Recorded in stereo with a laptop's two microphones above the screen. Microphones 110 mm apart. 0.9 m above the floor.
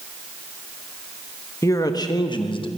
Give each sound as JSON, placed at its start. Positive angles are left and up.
{"t": 1.6, "sound": "a man speaking", "side_deg": 25, "distance_m": 1.1}